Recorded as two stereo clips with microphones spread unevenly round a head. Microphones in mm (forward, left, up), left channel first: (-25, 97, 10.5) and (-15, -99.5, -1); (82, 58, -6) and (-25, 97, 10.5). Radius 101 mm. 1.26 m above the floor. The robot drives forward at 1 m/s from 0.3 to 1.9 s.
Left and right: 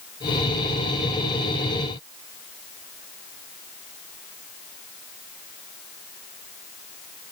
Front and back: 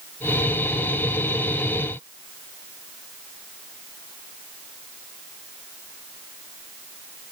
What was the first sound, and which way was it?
Only background noise.